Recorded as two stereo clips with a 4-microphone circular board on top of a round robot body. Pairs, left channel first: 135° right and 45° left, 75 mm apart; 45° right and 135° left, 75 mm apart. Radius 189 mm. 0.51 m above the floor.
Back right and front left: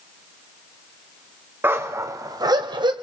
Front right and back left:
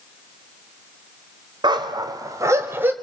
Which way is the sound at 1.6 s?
110° left.